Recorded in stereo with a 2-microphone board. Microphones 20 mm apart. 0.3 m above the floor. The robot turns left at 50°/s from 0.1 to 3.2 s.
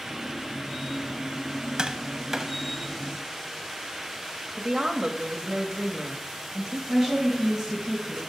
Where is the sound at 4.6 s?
35° right (ahead or behind), 1.0 m.